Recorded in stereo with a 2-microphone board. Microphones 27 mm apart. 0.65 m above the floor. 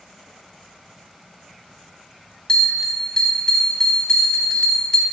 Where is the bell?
30° left (ahead or behind), 0.9 m.